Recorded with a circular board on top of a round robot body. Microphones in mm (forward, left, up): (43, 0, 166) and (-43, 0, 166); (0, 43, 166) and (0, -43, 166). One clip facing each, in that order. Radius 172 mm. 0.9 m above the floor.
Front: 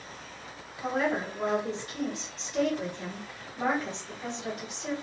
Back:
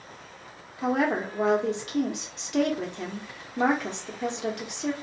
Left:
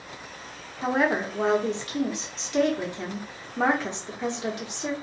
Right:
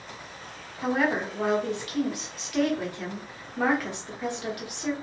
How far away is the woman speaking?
About 1.0 m.